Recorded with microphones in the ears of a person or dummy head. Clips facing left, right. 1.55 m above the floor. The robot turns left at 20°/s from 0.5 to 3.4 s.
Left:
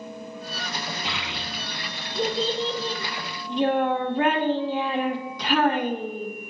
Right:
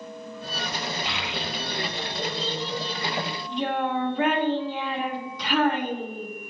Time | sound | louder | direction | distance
1.1 | a child speaking | right 2 dB | 95° left | 1.5 m